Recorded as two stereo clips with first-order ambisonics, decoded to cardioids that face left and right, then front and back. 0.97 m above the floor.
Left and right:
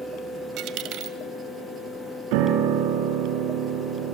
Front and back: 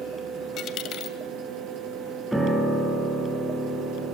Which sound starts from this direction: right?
A piano, at 2.3 s.